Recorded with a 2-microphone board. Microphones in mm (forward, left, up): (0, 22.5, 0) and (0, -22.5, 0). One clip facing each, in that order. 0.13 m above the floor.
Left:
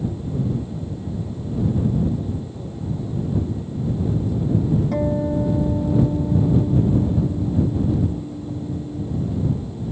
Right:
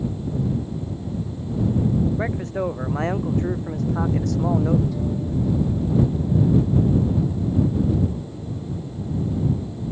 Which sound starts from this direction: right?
A man speaking, at 2.2 s.